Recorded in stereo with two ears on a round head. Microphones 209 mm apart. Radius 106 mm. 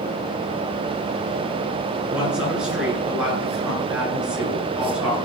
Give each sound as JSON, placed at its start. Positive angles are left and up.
{"t": 2.1, "sound": "a woman speaking", "side_deg": -5, "distance_m": 7.5}